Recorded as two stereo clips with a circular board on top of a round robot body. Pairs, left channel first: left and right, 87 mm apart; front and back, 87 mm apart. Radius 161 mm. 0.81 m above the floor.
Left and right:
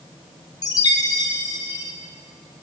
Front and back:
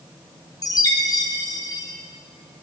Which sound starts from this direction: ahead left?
A chime, at 0.6 s.